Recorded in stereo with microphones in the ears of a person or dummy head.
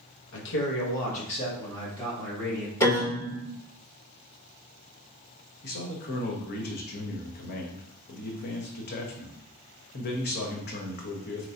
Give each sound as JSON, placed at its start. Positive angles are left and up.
{"t": 0.3, "sound": "a man speaking", "side_deg": 70, "distance_m": 1.1}
{"t": 2.8, "sound": "a piano", "side_deg": 20, "distance_m": 1.9}
{"t": 5.6, "sound": "a man speaking", "side_deg": 50, "distance_m": 0.9}